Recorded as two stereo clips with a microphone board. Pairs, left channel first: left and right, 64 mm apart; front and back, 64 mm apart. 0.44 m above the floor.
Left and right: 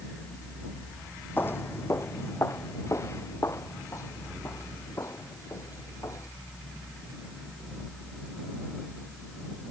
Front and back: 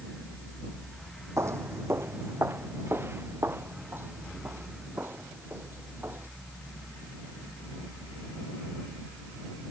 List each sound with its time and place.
1.4 s footsteps: 145° left; by 6.3 s 125° left